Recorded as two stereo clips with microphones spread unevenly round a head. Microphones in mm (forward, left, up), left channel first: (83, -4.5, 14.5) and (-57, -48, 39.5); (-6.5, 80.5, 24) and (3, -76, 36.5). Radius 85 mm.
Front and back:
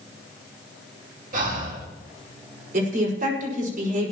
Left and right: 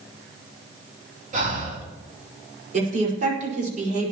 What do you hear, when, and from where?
1.3 s breathing: 130° right, 3.5 m
2.7 s a woman speaking: 130° right, 5 m